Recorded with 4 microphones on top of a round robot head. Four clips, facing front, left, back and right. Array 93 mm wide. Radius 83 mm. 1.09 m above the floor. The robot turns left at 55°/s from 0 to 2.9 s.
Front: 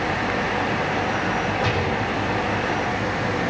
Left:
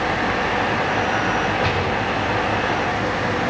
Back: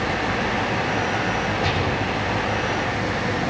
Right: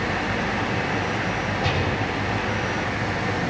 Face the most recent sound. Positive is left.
turn(degrees=0)